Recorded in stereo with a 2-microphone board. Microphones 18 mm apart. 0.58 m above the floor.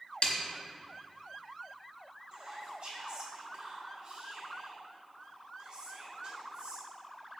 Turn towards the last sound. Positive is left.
turn(degrees=-50)  # may be behind; listen again after turning